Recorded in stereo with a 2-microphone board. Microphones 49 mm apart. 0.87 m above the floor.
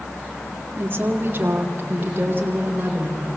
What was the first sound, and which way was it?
A woman speaking, 45° right (ahead or behind).